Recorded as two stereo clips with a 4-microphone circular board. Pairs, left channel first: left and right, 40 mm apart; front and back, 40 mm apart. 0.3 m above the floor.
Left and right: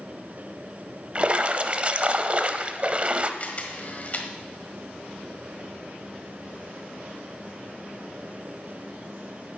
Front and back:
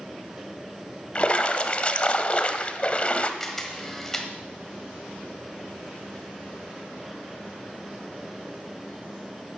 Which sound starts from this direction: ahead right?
A splash, at 1.1 s.